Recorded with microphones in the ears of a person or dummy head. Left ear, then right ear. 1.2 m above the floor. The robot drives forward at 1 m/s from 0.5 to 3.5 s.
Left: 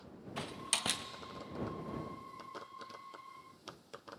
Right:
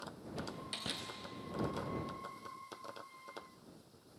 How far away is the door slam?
About 0.6 m.